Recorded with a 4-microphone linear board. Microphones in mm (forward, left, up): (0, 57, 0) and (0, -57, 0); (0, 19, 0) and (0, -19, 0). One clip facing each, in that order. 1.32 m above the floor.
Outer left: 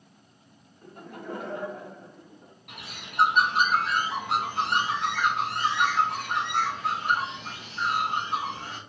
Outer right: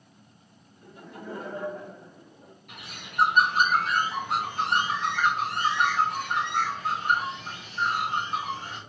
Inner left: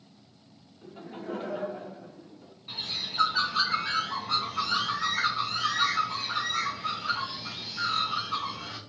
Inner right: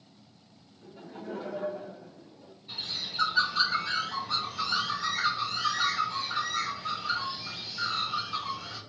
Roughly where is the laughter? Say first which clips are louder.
Outer left 1 dB, inner left 2 dB; left.